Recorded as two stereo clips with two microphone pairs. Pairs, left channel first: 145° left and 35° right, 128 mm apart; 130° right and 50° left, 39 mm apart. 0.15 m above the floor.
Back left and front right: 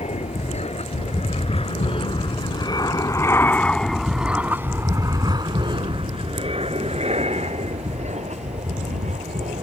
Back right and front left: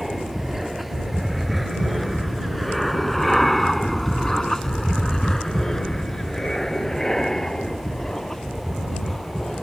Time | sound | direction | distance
0.0 | an aircraft | 135° left | ?